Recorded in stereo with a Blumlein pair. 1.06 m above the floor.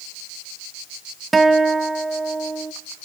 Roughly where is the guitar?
Ahead.